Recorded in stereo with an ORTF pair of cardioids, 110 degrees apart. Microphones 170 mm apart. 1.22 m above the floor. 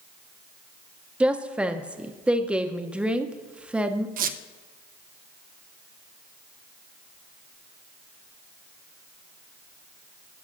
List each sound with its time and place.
1.2 s a woman speaking: 5° right, 0.6 m
4.2 s a squeak: 60° right, 0.5 m